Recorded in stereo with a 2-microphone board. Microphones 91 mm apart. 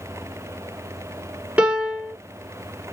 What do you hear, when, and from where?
1.6 s a piano: 15° right (ahead or behind), 1.5 m